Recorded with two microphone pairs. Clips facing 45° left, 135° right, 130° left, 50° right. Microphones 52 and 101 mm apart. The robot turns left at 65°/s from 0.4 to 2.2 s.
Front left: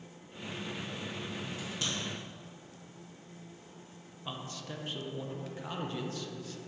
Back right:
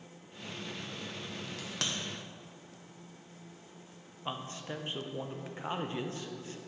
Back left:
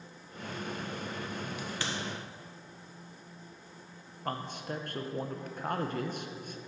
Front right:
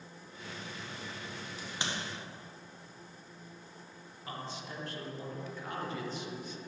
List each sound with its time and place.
1.6 s a crack: 105° right, 1.3 m; by 1.9 s 130° right, 1.3 m
4.2 s a man speaking: 165° left, 0.8 m